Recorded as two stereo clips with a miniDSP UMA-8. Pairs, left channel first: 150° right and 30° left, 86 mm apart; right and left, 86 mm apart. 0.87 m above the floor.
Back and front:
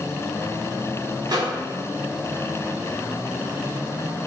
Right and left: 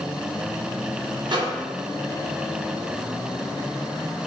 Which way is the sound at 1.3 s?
65° left.